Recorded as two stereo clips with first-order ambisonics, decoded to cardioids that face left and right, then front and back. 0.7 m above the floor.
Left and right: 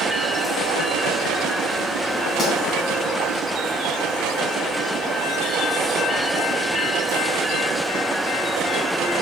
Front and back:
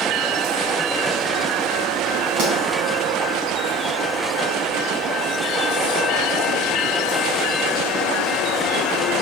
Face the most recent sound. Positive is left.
turn(degrees=170)